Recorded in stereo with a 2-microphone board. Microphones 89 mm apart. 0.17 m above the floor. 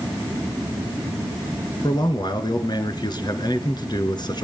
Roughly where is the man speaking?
Left.